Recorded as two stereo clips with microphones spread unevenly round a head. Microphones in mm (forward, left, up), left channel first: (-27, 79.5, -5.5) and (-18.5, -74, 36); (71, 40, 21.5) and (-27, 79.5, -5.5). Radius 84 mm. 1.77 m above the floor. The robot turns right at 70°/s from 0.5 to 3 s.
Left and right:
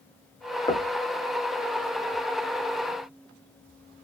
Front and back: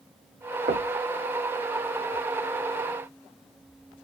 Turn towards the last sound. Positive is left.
turn(degrees=-30)